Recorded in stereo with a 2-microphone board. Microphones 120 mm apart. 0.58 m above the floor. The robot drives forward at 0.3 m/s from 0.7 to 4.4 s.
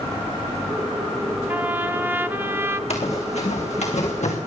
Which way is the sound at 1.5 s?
15° right (ahead or behind).